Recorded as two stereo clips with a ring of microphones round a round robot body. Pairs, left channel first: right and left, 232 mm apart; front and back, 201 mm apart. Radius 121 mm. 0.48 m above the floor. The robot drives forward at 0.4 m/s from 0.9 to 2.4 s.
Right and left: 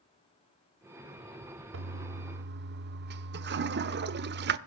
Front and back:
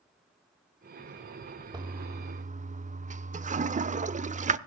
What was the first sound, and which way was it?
A toilet flushing, 115° left.